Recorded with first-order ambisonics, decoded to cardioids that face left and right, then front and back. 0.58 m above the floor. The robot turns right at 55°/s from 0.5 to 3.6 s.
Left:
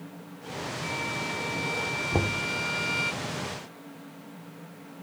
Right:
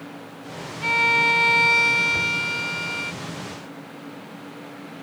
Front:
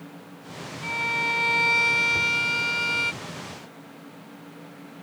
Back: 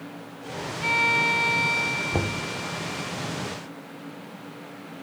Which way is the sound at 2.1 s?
135° left.